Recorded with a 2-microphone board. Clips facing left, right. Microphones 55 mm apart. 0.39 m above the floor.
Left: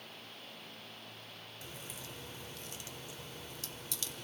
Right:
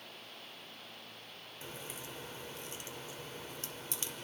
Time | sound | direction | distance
1.6 | a crack | 30° right (ahead or behind) | 1.3 m